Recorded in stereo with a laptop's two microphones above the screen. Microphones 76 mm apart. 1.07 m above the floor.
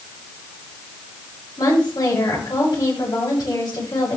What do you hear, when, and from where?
1.6 s a woman speaking: 60° left (ahead or behind), 7.5 m